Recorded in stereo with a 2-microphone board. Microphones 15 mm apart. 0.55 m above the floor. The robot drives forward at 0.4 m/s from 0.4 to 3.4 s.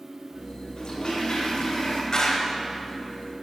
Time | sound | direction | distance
0.8 | a toilet flushing | 55° left (ahead or behind) | 1.4 m
2.1 | a clap | 45° left (ahead or behind) | 0.8 m